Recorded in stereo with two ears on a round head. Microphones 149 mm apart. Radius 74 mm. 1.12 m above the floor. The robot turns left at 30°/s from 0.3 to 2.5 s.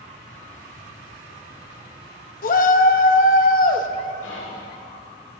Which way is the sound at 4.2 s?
80° left.